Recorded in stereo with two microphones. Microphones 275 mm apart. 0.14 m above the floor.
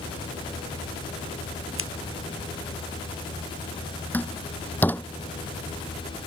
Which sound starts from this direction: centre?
A door slam, at 4.1 s.